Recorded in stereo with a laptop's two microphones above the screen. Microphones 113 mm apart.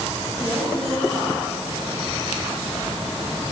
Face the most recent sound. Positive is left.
turn(degrees=20)  # may be behind; listen again after turning